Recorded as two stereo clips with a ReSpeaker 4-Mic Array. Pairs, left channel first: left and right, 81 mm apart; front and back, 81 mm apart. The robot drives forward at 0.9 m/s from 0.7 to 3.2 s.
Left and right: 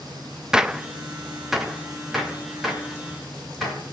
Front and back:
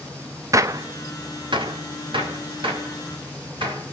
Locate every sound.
0.5 s a gunshot: 165° right, 0.5 m; by 3.8 s straight behind, 2.5 m